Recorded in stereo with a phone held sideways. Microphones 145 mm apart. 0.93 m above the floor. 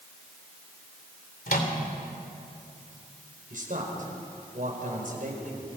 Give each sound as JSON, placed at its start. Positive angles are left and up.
{"t": 1.5, "sound": "a microwave", "side_deg": 75, "distance_m": 2.5}
{"t": 3.5, "sound": "a man speaking", "side_deg": -65, "distance_m": 5.0}